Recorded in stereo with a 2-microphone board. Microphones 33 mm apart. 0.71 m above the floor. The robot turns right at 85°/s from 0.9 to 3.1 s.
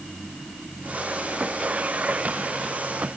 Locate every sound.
Only background noise.